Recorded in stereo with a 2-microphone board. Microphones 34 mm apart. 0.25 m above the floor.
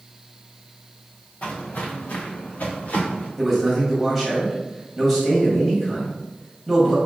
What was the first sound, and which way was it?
Footsteps, 55° left (ahead or behind).